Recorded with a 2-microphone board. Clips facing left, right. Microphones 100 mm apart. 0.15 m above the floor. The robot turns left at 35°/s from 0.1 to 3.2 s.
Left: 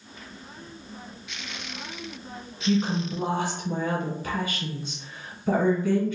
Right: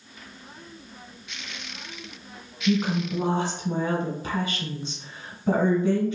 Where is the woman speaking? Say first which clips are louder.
Right 1 dB; 25° right (ahead or behind), 1.4 m; by 6.2 s 20° right (ahead or behind), 1.4 m.